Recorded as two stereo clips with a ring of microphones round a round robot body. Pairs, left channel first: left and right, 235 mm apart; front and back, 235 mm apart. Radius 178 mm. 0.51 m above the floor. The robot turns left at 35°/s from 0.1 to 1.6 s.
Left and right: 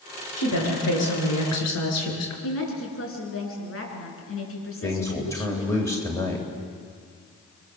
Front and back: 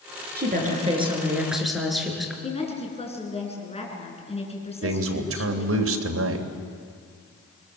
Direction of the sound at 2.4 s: 65° left.